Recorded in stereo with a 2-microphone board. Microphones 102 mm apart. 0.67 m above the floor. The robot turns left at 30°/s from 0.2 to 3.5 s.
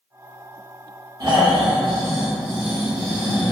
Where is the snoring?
105° right, 1.2 m; by 3.5 s 175° right, 1.2 m.